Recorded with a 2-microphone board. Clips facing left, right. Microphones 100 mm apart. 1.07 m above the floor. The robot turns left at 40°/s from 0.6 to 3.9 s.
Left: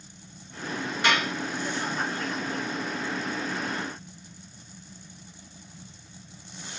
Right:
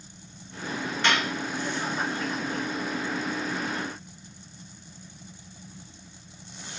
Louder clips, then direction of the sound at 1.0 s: Left 1 dB; 15° left (ahead or behind).